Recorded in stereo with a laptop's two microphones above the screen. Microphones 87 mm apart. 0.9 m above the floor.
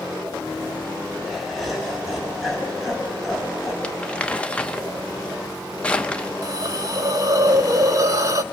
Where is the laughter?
Centre (ahead or behind), 6.5 m.